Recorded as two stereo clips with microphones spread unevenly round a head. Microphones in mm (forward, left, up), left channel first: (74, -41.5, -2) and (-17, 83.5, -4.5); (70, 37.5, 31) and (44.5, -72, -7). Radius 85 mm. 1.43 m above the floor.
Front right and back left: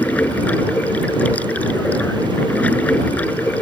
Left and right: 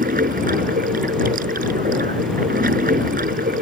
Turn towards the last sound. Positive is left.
turn(degrees=-135)